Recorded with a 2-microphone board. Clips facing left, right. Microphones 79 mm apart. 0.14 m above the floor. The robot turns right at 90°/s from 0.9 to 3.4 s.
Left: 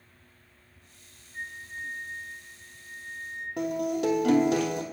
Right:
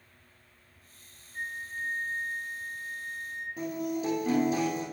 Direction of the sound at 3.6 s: 75° left (ahead or behind).